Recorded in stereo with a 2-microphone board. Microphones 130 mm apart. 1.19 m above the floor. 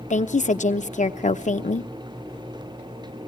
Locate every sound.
0.1 s a woman speaking: 70° left (ahead or behind), 0.8 m